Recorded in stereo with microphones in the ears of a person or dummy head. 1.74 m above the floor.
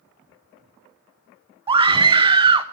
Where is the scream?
25° right (ahead or behind), 0.6 m.